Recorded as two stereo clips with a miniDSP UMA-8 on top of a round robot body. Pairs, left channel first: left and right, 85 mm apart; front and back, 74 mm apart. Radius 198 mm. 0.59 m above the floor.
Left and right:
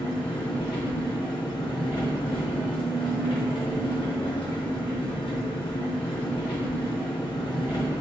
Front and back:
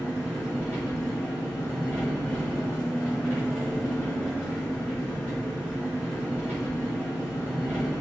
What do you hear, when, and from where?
0.0 s an engine running: 70° left, 0.8 m